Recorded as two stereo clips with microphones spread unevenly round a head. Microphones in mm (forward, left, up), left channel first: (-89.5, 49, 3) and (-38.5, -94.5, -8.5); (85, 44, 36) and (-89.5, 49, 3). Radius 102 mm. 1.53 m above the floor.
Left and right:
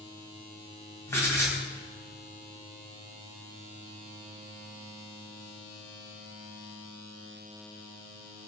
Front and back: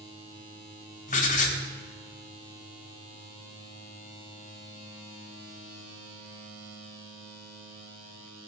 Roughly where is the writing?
Ahead left.